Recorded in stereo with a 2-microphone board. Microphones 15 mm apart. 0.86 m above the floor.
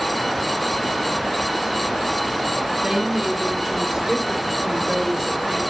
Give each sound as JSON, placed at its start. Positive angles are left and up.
{"t": 2.8, "sound": "a woman speaking", "side_deg": -50, "distance_m": 2.5}